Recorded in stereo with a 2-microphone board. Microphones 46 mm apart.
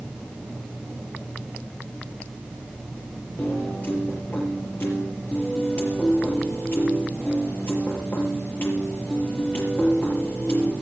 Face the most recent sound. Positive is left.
turn(degrees=45)  # may be behind; listen again after turning